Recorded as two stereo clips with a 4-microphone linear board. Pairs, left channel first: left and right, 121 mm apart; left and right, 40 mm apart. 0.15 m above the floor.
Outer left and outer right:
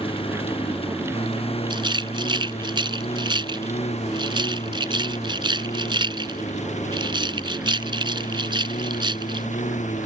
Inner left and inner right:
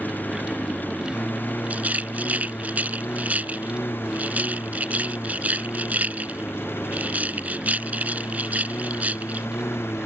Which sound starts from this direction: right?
A rattle, at 1.7 s.